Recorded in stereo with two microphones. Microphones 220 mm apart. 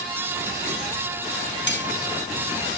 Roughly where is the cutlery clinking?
Left.